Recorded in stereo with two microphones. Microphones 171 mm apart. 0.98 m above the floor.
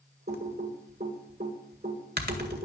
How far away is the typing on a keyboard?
About 1.6 m.